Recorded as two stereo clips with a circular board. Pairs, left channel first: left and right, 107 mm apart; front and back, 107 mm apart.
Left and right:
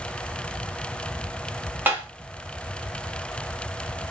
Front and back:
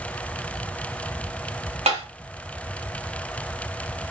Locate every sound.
1.9 s tapping: 165° right, 0.9 m